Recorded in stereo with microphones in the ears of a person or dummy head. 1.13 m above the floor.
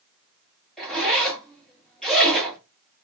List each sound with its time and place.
0.8 s a zipper: centre (ahead or behind), 1.3 m